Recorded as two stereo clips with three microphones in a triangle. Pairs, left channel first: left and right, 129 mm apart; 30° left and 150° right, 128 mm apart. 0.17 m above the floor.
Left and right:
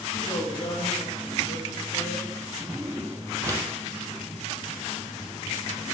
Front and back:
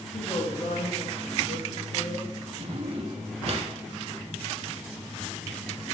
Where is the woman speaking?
55° left, 3.5 m; by 2.5 s 45° left, 4.5 m.